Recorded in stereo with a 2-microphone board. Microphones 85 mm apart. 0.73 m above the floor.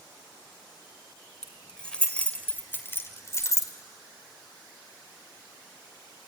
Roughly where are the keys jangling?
Centre.